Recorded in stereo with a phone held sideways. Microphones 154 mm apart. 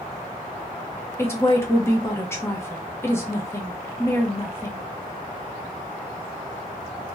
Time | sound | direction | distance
1.2 | a woman speaking | 15° left (ahead or behind) | 0.7 m